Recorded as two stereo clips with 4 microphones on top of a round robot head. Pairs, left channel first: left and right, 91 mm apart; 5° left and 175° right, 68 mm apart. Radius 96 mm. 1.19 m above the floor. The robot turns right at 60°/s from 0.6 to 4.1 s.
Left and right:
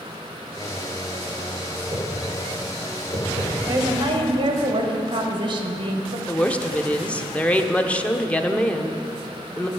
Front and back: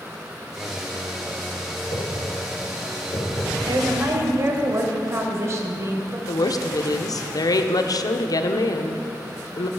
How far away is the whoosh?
About 2 m.